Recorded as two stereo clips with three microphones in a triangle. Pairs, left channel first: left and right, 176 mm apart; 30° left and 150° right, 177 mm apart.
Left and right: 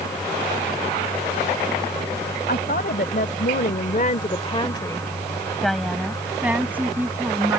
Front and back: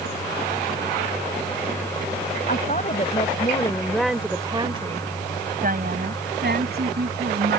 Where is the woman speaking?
65° left; by 7.6 s 165° right.